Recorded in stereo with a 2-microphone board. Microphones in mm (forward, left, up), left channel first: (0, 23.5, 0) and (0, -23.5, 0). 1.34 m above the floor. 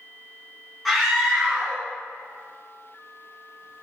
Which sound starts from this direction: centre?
A scream, at 0.8 s.